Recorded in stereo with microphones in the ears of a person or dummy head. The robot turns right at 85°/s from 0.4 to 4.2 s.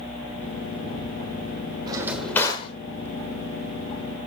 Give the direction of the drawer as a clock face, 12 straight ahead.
1 o'clock.